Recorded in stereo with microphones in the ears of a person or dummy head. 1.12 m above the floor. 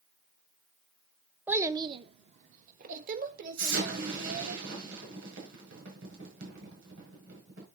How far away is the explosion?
About 6.5 m.